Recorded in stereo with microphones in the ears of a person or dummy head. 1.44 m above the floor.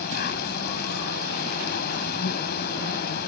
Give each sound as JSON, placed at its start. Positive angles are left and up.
{"t": 0.0, "sound": "an insect", "side_deg": 55}